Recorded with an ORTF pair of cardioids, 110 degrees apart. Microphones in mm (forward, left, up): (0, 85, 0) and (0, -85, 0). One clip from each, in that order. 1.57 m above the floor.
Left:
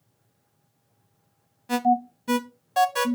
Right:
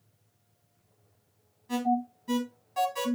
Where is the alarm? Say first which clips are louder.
Left 7 dB; 60° left, 1.1 m.